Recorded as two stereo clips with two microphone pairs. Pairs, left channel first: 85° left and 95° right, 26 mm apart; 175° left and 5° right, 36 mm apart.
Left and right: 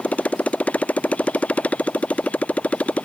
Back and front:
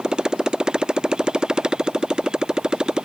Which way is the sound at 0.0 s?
60° left.